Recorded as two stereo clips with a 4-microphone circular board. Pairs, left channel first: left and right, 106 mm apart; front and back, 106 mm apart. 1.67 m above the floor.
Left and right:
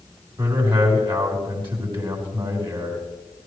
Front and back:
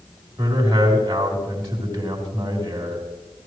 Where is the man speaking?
130° right, 4.5 m.